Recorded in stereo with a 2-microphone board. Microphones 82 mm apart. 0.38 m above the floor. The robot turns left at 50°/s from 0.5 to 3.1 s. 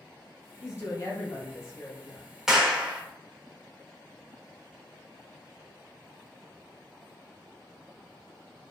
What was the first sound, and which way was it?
A woman speaking, 120° left.